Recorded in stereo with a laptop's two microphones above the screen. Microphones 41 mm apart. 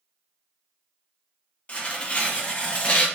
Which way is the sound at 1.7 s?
30° left (ahead or behind).